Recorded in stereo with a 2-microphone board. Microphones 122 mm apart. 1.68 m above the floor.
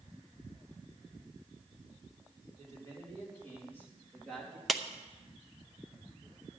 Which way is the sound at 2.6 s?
25° left (ahead or behind).